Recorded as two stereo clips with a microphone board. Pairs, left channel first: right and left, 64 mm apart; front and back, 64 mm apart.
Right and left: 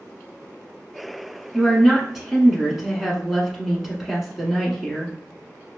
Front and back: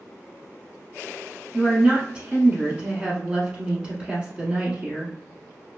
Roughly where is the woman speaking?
Behind.